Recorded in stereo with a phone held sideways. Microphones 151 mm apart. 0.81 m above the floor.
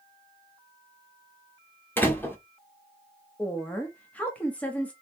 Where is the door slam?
15° left (ahead or behind), 1.5 m.